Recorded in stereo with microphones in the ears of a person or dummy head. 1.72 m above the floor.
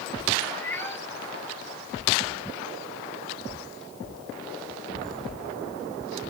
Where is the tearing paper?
Centre (ahead or behind).